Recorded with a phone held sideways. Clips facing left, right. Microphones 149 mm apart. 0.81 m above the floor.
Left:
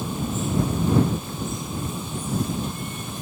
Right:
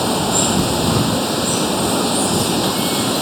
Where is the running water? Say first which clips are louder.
Right 10 dB; 85° right.